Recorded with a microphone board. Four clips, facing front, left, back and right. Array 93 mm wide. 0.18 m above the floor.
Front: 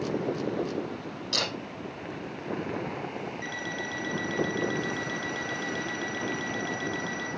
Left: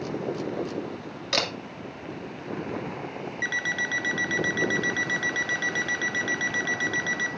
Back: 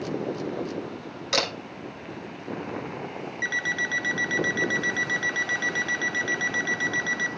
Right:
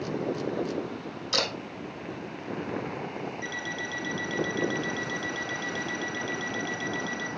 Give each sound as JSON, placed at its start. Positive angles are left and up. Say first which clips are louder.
{"t": 1.3, "sound": "a camera shutter", "louder": "left 2 dB, back 6 dB", "azimuth_deg": 125, "distance_m": 2.5}
{"t": 3.4, "sound": "an alarm clock", "louder": "left 4 dB, back 4 dB", "azimuth_deg": 125, "distance_m": 1.0}